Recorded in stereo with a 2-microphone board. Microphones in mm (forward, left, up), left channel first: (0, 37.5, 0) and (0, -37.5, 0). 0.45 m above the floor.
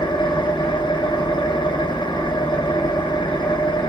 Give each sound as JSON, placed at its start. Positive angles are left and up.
{"t": 0.0, "sound": "an engine running", "side_deg": 80, "distance_m": 0.8}